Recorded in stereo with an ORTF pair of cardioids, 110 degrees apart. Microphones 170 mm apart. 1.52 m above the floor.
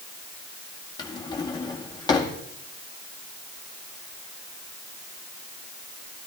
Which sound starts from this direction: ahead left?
A drawer, at 1.0 s.